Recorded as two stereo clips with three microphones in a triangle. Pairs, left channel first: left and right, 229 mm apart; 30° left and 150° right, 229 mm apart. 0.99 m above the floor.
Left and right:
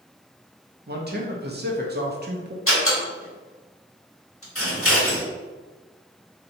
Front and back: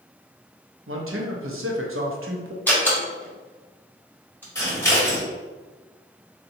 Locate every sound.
0.9 s a man speaking: 135° right, 0.6 m
2.7 s a door slam: 110° left, 1.3 m
4.5 s scissors: 105° left, 1.3 m